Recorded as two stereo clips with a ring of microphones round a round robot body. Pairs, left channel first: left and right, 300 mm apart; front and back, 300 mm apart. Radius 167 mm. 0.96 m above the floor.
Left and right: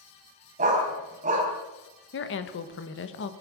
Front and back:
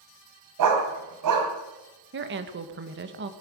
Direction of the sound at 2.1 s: 135° left.